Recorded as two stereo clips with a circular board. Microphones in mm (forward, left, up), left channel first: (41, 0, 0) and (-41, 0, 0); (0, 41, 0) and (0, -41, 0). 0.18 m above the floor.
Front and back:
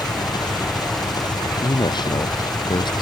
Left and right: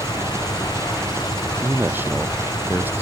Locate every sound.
0.0 s an engine running: 35° right
1.6 s a man speaking: 25° right